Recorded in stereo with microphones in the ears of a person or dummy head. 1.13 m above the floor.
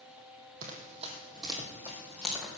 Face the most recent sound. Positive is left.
turn(degrees=5)  # may be behind; listen again after turning